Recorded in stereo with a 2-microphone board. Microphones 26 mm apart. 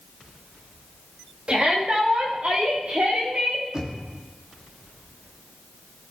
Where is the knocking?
30° right (ahead or behind), 1.4 m.